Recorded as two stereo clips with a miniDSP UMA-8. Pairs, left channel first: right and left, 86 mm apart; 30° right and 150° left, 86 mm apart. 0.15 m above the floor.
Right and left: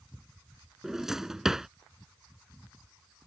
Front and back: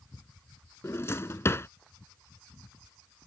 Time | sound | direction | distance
0.8 | a drawer | 10° left | ?